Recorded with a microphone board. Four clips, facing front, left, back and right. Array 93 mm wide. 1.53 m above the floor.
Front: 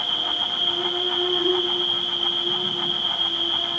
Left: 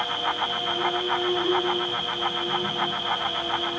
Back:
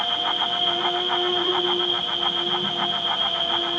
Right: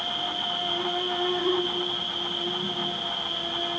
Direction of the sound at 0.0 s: 165° left.